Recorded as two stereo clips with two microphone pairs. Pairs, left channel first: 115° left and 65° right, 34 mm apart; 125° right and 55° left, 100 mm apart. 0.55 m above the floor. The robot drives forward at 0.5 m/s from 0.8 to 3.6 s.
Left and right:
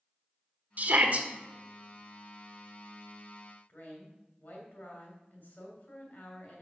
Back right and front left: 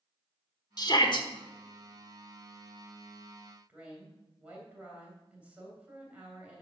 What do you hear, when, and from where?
0.8 s a shout: 90° right, 1.3 m; by 1.3 s 100° right, 1.3 m
3.7 s a woman speaking: 130° left, 2.5 m